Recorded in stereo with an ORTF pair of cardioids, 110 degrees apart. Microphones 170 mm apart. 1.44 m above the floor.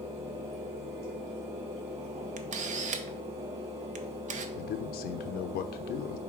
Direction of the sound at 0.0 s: 40° right.